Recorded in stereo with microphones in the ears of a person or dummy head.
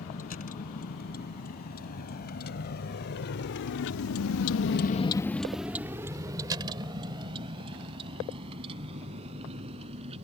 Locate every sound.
0.0 s a vehicle: 45° left (ahead or behind); by 10.2 s 30° right (ahead or behind)